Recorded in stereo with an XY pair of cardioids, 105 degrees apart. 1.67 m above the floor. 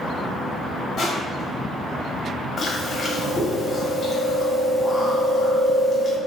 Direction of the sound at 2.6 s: 45° left.